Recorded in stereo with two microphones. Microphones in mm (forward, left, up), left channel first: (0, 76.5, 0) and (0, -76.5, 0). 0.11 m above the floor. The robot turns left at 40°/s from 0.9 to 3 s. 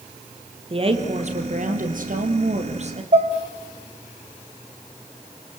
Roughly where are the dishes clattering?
Right.